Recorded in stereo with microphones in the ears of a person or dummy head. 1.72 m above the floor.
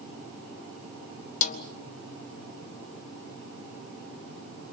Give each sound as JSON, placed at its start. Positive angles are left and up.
{"t": 1.4, "sound": "a snare drum", "side_deg": 45, "distance_m": 1.7}